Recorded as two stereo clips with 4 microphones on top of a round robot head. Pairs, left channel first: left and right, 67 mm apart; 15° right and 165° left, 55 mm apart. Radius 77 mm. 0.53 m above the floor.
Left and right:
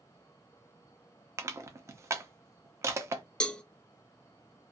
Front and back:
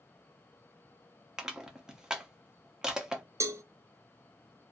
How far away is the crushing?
About 0.7 m.